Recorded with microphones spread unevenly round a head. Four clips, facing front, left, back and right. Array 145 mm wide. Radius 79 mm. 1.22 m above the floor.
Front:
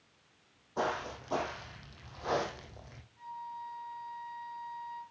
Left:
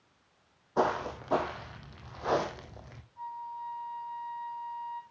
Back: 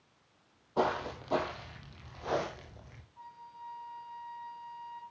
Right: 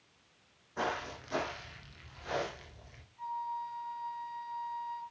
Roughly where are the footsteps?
Left.